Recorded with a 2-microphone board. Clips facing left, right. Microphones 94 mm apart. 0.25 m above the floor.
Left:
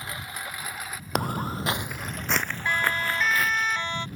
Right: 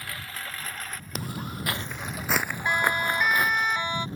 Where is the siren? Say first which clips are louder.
Right 2 dB; 15° right (ahead or behind); by 4.0 s 10° right (ahead or behind).